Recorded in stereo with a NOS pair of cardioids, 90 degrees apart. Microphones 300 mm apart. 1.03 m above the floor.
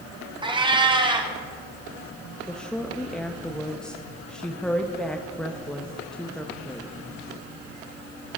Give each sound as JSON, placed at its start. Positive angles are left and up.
{"t": 0.4, "sound": "a cat meowing", "azimuth_deg": -15, "distance_m": 1.4}
{"t": 2.5, "sound": "a woman speaking", "azimuth_deg": 0, "distance_m": 0.7}